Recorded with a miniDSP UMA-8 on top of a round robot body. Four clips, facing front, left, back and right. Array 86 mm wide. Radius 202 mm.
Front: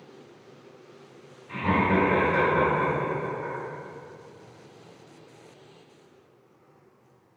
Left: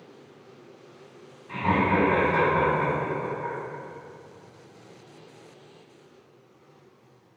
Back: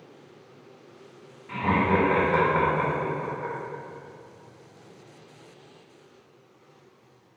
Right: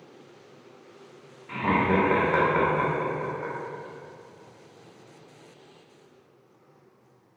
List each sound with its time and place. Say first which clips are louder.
1.5 s laughter: even, even; 125° right, 1.0 m